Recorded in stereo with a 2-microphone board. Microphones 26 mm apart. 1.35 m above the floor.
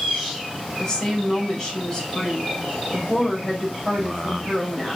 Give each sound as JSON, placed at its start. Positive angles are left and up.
{"t": 0.8, "sound": "a woman speaking", "side_deg": 15, "distance_m": 6.0}